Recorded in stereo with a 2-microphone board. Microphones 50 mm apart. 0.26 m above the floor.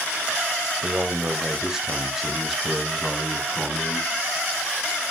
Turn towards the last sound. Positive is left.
turn(degrees=0)  # may be behind; listen again after turning